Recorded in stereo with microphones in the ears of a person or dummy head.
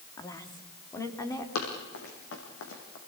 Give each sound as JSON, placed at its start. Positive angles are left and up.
{"t": 0.2, "sound": "a woman speaking", "side_deg": 20, "distance_m": 2.5}
{"t": 1.6, "sound": "running footsteps", "side_deg": 75, "distance_m": 5.5}